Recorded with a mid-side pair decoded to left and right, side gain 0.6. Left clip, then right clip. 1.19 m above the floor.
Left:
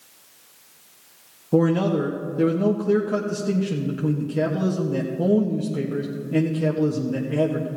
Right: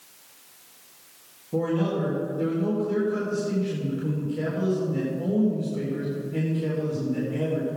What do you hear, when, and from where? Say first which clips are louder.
1.5 s a man speaking: left 6 dB; 55° left, 1.5 m